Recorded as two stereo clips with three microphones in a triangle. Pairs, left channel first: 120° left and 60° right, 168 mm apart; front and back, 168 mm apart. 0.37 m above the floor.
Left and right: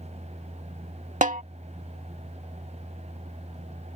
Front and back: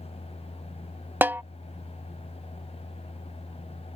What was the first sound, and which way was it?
A snare drum, 100° right.